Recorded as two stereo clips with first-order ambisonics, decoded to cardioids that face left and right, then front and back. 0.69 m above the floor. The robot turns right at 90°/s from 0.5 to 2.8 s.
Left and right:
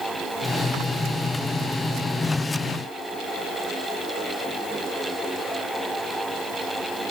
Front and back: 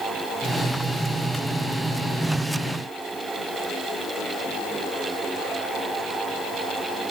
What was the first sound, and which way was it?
Only background noise.